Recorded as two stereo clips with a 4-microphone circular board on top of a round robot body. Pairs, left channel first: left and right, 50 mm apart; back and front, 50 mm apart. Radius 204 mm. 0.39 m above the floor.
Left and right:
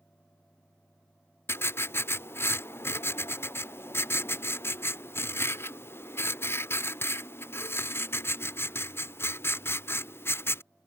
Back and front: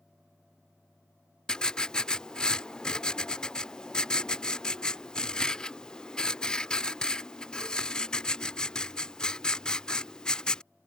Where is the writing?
105° left.